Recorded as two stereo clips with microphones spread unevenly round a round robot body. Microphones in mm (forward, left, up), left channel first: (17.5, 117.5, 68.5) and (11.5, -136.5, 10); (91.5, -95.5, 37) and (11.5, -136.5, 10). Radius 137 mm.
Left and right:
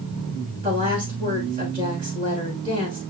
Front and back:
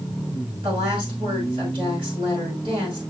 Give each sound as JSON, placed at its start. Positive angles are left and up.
{"t": 0.6, "sound": "a woman speaking", "azimuth_deg": -160, "distance_m": 5.0}